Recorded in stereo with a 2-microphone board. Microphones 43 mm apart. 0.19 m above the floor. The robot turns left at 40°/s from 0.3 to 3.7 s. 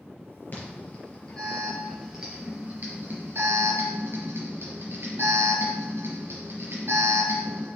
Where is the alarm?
50° left (ahead or behind), 3 m; by 7.7 s 65° right (ahead or behind), 3 m.